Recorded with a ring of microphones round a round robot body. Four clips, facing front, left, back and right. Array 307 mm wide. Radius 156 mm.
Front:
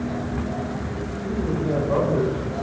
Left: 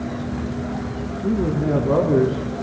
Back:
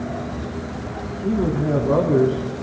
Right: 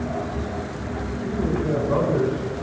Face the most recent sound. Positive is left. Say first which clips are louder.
# left 4 dB, back 5 dB
turn(degrees=125)